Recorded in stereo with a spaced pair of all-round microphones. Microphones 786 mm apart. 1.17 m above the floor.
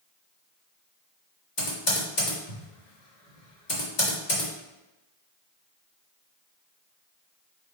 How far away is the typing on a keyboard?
About 2 m.